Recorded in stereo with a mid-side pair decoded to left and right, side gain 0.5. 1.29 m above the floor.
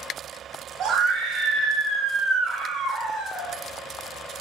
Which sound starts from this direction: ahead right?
A scream, at 0.8 s.